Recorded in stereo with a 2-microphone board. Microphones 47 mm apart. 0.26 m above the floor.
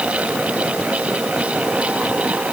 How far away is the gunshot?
I don't hear a gunshot.